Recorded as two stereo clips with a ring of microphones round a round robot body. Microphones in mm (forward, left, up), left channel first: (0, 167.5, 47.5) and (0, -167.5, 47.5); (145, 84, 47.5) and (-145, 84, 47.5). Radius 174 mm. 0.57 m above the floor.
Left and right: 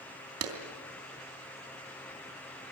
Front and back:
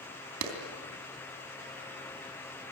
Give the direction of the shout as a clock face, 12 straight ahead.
I don't hear a shout.